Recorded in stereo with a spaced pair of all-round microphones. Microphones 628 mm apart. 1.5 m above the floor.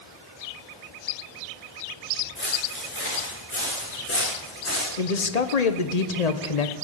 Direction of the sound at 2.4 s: 15° left (ahead or behind).